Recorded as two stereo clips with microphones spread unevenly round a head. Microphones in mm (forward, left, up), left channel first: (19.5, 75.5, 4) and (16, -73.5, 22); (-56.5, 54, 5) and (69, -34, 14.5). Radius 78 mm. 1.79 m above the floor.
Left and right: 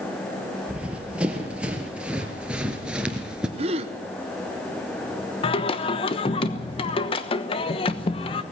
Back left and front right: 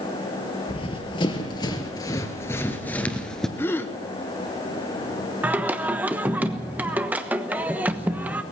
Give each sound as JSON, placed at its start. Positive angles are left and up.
{"t": 0.7, "sound": "running footsteps", "azimuth_deg": -165, "distance_m": 2.5}
{"t": 3.6, "sound": "a gasp", "azimuth_deg": -135, "distance_m": 1.0}
{"t": 5.4, "sound": "singing", "azimuth_deg": 40, "distance_m": 1.1}